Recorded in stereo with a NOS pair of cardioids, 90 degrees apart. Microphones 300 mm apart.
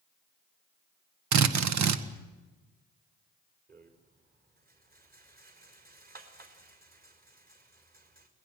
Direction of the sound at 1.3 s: 65° right.